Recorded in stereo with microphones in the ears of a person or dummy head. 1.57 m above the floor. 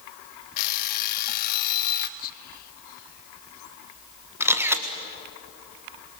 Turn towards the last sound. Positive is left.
turn(degrees=-15)  # may be behind; listen again after turning